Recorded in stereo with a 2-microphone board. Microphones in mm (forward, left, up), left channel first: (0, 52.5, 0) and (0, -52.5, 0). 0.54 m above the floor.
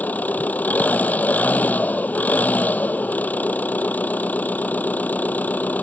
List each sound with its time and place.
0.0 s an engine running: 15° left (ahead or behind)